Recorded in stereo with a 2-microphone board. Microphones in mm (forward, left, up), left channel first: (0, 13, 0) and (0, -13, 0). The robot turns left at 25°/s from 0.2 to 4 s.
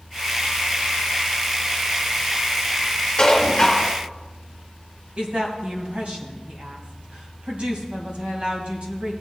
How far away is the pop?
No pop in this recording.